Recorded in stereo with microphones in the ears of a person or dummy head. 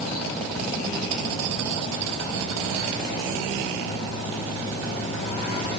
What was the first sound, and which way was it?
Only background noise.